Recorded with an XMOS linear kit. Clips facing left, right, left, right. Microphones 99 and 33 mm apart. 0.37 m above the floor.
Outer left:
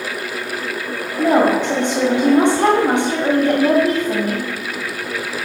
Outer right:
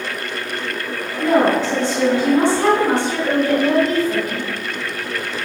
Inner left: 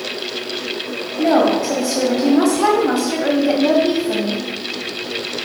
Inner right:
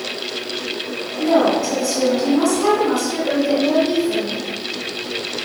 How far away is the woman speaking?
About 1.9 m.